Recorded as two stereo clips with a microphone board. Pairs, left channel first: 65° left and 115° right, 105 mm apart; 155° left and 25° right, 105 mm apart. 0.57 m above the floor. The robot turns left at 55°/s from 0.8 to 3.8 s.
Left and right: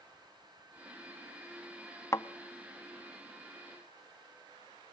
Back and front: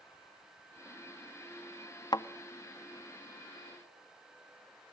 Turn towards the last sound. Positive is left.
turn(degrees=35)